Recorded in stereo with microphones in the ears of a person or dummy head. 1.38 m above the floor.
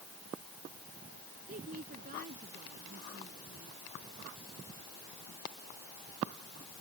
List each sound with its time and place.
1.5 s a woman speaking: 45° right (ahead or behind)